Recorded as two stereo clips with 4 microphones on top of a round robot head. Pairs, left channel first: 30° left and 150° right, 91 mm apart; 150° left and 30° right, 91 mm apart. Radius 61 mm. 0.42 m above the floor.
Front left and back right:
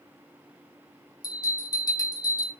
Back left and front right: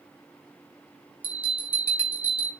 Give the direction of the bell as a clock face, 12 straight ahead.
11 o'clock.